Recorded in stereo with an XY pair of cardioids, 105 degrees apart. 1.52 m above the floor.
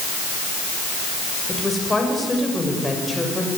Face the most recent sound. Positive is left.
turn(degrees=5)